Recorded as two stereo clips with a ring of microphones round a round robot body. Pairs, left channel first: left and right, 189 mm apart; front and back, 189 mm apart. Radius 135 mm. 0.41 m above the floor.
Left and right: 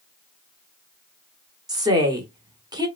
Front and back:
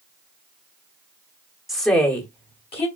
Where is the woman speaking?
90° right, 1.2 m; by 2.9 s 35° right, 1.4 m.